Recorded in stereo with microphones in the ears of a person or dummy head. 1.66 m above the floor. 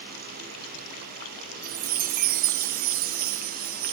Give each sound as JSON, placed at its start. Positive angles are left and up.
{"t": 1.6, "sound": "a chime", "side_deg": -40, "distance_m": 0.7}